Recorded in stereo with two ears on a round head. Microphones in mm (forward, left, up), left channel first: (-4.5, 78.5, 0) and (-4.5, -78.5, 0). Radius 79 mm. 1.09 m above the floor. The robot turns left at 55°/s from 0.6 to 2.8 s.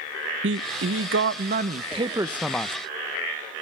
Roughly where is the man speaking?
Right.